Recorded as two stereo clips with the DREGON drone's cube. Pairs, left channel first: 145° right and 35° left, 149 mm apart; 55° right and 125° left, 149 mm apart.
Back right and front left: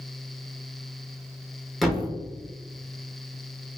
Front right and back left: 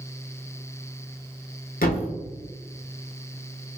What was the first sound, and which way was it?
A thud, 55° right.